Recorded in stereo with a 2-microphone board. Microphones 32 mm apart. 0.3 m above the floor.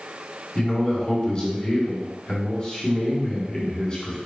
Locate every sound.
0.6 s a man speaking: 30° left (ahead or behind), 2.5 m